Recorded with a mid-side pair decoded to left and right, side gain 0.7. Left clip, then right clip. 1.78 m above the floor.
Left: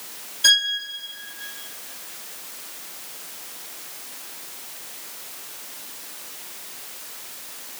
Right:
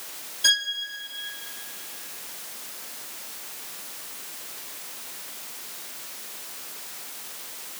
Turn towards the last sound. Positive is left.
turn(degrees=15)